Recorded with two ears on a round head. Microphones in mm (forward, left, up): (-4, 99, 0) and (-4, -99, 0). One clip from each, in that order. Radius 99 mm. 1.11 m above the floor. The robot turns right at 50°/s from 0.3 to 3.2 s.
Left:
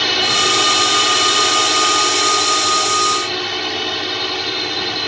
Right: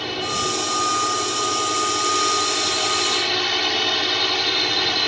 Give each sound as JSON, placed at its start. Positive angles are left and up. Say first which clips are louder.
{"t": 0.0, "sound": "a drone", "louder": "left 9 dB", "azimuth_deg": 55}